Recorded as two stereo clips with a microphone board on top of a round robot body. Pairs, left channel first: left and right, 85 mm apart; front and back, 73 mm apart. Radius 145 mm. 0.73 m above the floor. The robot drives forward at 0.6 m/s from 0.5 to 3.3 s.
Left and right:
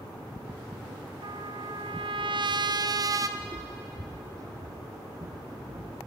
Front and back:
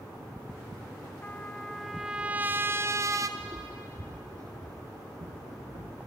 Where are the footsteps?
130° right, 0.9 m; by 6.0 s 145° right, 3 m.